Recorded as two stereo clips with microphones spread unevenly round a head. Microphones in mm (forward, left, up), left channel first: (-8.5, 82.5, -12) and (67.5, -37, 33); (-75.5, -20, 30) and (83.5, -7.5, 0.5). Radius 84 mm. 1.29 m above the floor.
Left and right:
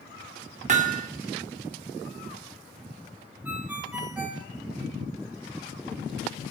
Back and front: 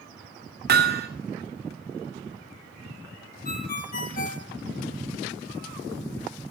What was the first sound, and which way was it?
Hammering, 25° right.